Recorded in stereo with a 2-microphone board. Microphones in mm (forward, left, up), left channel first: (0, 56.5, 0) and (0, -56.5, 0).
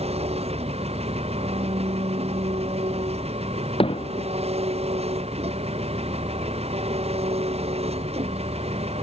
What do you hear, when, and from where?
0.0 s an engine running: 65° right (ahead or behind)
3.8 s hammering: 55° left (ahead or behind)